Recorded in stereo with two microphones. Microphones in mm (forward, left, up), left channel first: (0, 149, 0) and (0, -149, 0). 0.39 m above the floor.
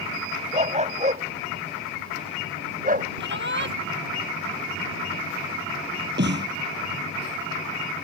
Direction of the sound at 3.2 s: 40° right (ahead or behind).